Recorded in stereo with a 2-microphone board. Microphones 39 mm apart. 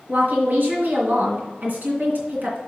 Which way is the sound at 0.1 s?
60° right (ahead or behind).